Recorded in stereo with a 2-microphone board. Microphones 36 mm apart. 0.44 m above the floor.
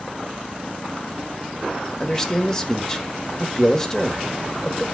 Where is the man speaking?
20° left (ahead or behind), 1.5 m.